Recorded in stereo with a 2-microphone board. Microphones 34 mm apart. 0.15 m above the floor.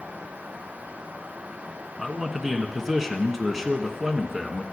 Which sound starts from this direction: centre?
A man speaking, at 2.0 s.